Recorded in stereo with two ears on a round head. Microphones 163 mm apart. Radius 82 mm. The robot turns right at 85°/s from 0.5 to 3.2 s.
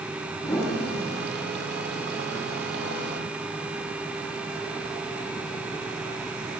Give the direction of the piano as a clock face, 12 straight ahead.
12 o'clock.